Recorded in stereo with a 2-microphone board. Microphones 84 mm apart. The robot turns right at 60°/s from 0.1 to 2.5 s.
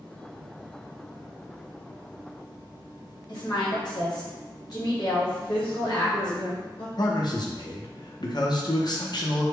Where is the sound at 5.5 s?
75° left (ahead or behind), 0.8 m.